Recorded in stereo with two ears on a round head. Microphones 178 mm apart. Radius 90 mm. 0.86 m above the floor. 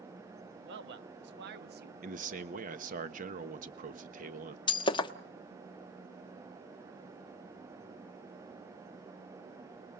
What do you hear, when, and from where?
0.7 s a man speaking: 60° right (ahead or behind), 1.2 m; by 1.9 s 50° right (ahead or behind), 1.1 m
2.0 s a man speaking: 40° right (ahead or behind), 1.1 m
4.7 s breaking glass: 25° left (ahead or behind), 0.9 m